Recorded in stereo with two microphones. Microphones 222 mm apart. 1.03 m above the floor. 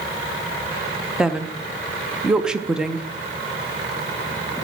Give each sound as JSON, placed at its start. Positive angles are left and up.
{"t": 1.2, "sound": "a woman speaking", "side_deg": -5, "distance_m": 0.6}